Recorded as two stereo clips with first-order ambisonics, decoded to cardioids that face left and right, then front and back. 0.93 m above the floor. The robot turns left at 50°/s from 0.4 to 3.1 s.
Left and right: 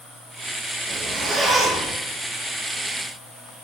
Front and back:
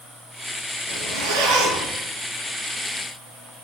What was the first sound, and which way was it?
A zipper, 140° right.